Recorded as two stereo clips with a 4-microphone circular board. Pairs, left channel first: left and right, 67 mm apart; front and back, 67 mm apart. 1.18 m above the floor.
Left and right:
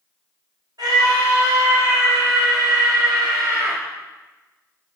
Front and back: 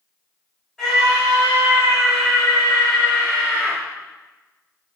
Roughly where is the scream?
Right.